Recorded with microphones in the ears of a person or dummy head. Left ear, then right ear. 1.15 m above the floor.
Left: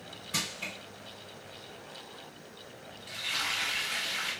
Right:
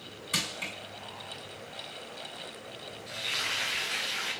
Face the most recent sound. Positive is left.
turn(degrees=-20)  # may be behind; listen again after turning